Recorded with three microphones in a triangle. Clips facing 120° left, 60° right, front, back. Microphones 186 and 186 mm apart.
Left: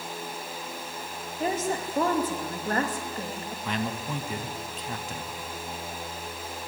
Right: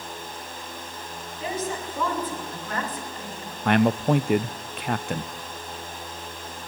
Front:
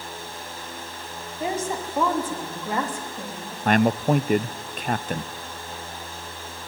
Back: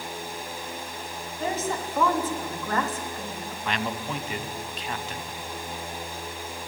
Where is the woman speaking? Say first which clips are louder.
Left 2 dB, front 2 dB; 75° left, 3 m.